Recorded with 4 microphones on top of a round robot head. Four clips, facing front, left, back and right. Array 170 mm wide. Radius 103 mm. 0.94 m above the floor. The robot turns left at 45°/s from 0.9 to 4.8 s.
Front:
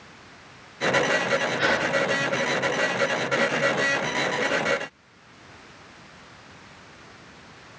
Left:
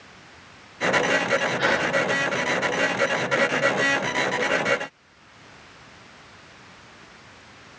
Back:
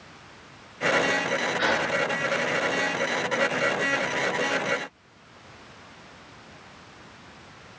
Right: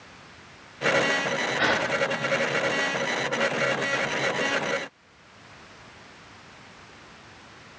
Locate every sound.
1.6 s a gasp: 70° right, 1.4 m; by 1.9 s 85° right, 1.4 m